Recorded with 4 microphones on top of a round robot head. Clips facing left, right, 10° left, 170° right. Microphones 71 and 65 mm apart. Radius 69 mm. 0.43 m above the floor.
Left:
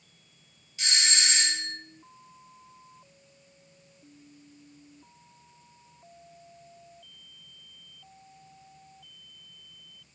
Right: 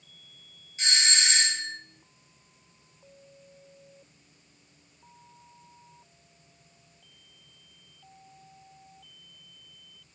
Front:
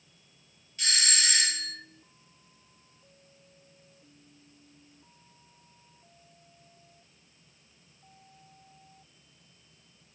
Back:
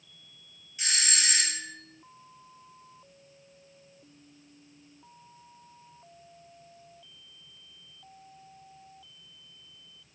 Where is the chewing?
I don't hear chewing.